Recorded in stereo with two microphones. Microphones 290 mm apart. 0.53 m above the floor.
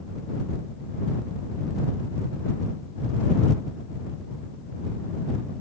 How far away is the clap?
I don't hear a clap.